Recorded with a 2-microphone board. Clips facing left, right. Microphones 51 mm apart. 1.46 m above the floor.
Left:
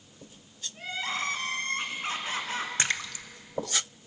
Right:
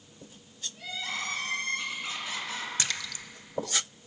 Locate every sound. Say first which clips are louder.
0.8 s crying: left 3 dB; 40° left (ahead or behind), 3 m
2.8 s a splash: left 4 dB; 35° left (ahead or behind), 0.9 m